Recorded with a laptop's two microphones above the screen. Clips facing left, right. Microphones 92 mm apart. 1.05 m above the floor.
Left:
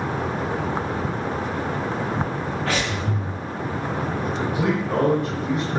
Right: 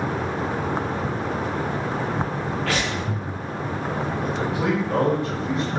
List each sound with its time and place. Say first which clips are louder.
2.7 s breathing: even; 35° left (ahead or behind), 1.6 m
4.2 s a man speaking: left 1 dB; 55° left (ahead or behind), 1.1 m